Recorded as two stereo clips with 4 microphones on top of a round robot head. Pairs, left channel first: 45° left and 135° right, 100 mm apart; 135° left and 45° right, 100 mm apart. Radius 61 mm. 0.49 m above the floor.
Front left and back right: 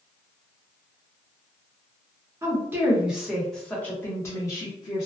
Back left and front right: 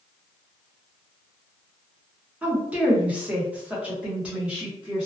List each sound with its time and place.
2.4 s a woman speaking: 110° right, 1.1 m; by 5.1 s 35° left, 1.3 m